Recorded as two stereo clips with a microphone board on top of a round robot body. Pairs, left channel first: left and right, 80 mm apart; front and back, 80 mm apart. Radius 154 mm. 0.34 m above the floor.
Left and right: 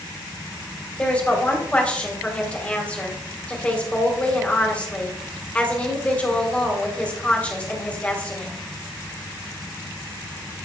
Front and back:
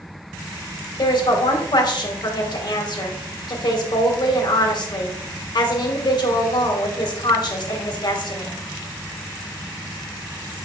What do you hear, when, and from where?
1.0 s a woman speaking: 15° left, 1.9 m